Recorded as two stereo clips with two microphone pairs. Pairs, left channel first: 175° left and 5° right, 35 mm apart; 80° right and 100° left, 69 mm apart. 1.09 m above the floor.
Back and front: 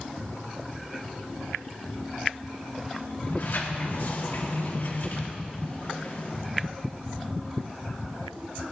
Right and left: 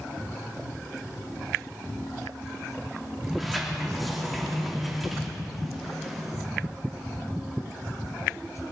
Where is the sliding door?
170° right, 2.5 m.